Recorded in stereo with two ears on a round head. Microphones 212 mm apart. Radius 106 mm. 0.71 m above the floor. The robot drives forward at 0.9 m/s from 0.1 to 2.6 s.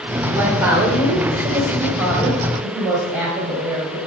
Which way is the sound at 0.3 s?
10° right (ahead or behind).